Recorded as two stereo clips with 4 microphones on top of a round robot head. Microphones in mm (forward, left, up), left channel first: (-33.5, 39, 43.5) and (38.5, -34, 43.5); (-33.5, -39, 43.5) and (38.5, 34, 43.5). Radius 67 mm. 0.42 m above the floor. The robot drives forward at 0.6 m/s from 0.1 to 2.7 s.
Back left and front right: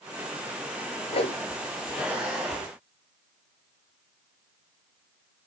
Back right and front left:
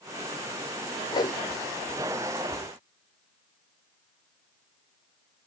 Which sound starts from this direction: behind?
A whoosh, at 1.1 s.